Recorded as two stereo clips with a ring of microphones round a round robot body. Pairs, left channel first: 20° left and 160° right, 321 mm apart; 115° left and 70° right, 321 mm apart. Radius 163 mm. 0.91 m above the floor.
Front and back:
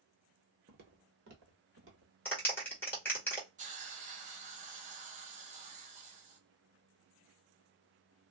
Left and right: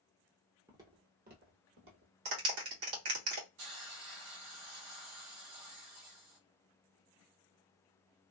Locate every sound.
0.7 s footsteps: 145° right, 1.0 m; by 2.1 s 110° right, 1.7 m
2.2 s a clap: 60° right, 1.4 m
3.6 s a hiss: 95° right, 1.1 m